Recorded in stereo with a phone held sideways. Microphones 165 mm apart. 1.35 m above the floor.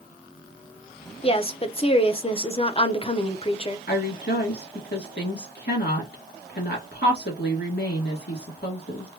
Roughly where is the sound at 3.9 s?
Left.